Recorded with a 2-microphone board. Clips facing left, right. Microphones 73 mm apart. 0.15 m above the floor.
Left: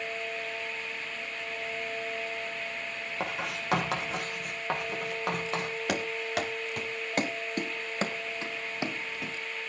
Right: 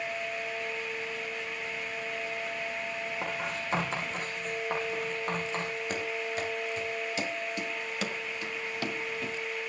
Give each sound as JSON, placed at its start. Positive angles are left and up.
{"t": 3.2, "sound": "writing", "side_deg": 75, "distance_m": 8.0}
{"t": 5.9, "sound": "running footsteps", "side_deg": 85, "distance_m": 3.0}